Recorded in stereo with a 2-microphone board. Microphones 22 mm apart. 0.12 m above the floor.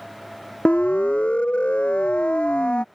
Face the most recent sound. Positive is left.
turn(degrees=60)  # may be behind; listen again after turning